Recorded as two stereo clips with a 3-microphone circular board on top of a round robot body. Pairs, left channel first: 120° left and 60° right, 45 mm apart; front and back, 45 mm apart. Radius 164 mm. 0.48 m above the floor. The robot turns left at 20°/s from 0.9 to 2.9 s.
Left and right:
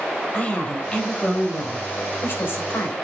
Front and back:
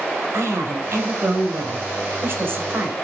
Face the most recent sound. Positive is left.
turn(degrees=140)